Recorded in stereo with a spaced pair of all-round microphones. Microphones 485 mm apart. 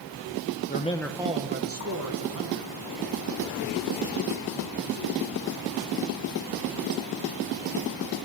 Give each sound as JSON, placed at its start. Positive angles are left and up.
{"t": 0.7, "sound": "a man speaking", "side_deg": 20, "distance_m": 0.8}